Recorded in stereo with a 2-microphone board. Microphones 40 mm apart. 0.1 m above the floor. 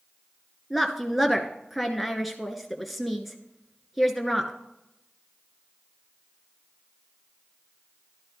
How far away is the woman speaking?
About 1.1 m.